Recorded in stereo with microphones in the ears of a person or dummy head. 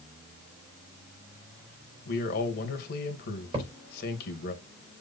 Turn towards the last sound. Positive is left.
turn(degrees=-30)  # may be behind; listen again after turning